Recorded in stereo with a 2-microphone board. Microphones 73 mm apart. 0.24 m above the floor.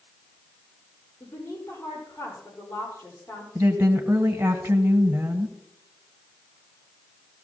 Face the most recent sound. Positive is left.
turn(degrees=-45)  # may be behind; listen again after turning